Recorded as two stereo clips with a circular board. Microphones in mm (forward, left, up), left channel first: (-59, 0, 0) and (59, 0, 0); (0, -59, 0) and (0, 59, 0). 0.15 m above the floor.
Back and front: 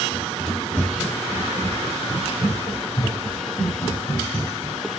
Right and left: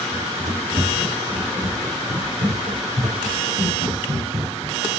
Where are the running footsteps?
95° left, 1.2 m; by 4.8 s 120° left, 3.5 m.